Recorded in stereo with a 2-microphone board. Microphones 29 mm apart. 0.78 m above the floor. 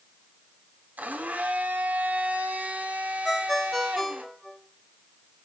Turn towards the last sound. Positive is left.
turn(degrees=5)  # may be behind; listen again after turning